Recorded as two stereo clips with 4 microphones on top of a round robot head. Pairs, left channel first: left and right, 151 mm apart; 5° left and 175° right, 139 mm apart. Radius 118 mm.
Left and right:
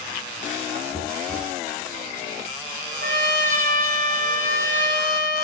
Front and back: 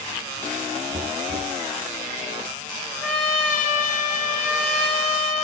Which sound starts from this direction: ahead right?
A trumpet, at 3.0 s.